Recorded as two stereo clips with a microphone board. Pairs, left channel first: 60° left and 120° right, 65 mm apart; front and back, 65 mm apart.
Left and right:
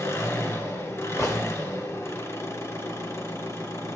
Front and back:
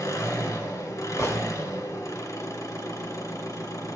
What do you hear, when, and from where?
0.0 s an engine running: 30° left, 2.0 m
1.2 s a gunshot: 35° left, 1.6 m